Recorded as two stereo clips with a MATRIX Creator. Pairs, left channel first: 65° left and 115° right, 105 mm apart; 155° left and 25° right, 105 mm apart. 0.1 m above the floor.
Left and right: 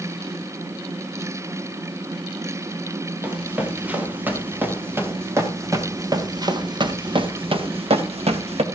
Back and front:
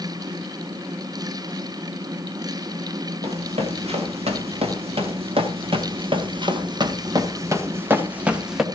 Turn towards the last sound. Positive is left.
turn(degrees=-110)